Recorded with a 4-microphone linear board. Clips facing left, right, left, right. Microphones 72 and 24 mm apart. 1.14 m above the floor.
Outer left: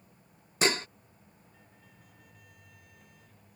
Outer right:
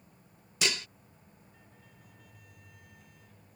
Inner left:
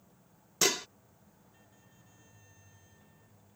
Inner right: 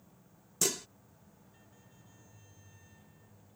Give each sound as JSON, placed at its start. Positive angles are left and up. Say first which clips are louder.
{"t": 0.6, "sound": "dishes clattering", "louder": "outer left 6 dB, inner left 5 dB", "side_deg": 35}